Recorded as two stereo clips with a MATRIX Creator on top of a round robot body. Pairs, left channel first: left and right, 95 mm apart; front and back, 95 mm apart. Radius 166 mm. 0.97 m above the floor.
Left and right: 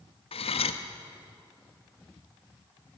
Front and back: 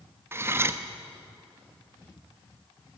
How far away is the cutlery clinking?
About 0.9 m.